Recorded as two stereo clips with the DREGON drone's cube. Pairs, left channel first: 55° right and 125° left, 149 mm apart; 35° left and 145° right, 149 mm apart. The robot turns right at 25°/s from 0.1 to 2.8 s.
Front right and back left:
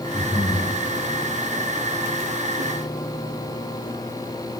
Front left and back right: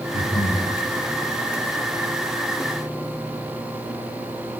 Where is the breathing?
25° left, 9 m; by 0.7 s 40° left, 9 m.